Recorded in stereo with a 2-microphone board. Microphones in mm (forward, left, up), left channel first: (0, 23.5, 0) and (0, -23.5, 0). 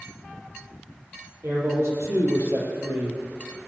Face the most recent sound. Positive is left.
turn(degrees=-55)  # may be behind; listen again after turning